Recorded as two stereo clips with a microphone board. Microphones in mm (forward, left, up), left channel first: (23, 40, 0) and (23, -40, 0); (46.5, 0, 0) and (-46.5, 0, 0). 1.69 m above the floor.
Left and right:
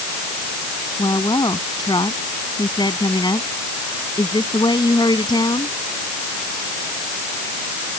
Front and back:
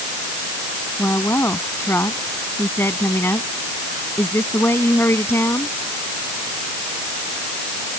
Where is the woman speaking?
65° left.